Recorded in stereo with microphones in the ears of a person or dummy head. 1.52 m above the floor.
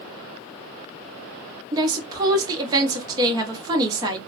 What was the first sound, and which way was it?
A woman speaking, 20° right (ahead or behind).